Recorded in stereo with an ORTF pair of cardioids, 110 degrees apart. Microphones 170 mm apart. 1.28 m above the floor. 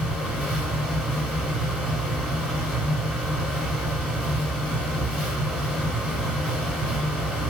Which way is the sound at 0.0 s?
Straight ahead.